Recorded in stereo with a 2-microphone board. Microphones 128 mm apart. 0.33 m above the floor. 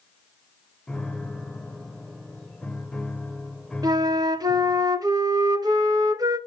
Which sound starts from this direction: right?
A flute, at 3.8 s.